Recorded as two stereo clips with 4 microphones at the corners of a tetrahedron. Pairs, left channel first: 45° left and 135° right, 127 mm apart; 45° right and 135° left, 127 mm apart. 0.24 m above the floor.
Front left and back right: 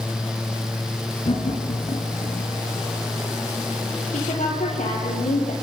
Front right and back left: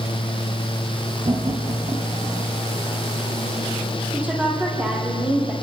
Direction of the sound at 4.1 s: 55° left.